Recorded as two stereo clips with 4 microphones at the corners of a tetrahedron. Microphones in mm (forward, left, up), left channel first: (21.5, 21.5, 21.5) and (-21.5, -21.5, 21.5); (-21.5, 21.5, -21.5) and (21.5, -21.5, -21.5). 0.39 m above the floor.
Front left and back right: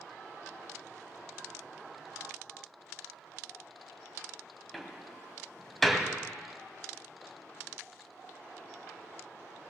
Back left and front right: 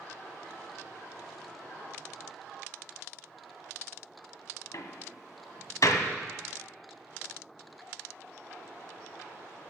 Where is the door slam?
130° left, 1.5 m.